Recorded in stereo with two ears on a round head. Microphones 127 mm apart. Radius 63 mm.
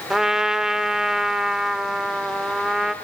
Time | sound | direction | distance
0.1 | a trumpet | 5° right (ahead or behind) | 1.5 m